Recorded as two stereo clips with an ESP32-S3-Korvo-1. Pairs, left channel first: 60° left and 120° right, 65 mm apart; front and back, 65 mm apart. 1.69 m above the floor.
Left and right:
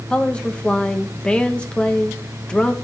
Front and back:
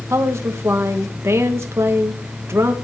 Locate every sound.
0.1 s a woman speaking: 135° left, 1.8 m